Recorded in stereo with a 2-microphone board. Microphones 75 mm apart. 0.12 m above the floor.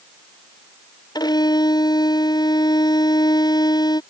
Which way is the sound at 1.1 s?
65° left (ahead or behind).